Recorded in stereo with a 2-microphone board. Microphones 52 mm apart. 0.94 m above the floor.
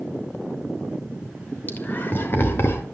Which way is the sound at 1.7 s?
35° left (ahead or behind).